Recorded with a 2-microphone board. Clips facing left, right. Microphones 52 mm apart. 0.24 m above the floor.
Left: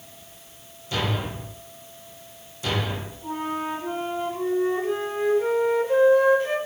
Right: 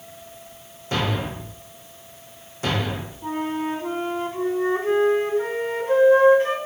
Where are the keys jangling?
I don't hear keys jangling.